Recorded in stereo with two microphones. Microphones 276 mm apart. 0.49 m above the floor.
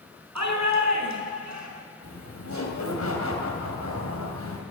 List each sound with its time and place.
0.3 s a shout: 80° right, 4.5 m
2.0 s laughter: 70° left (ahead or behind), 3 m